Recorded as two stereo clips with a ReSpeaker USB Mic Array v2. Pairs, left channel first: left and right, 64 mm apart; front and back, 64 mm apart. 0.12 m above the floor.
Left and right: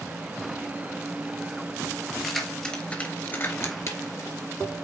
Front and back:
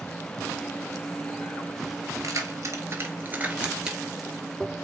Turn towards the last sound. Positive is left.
turn(degrees=90)